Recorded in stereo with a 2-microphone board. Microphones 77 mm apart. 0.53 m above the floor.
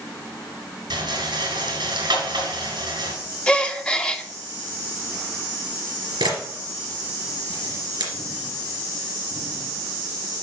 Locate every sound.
0.9 s a rattle: 80° right, 2.5 m
3.5 s a gasp: 15° left (ahead or behind), 0.7 m
6.2 s a camera shutter: 80° right, 3 m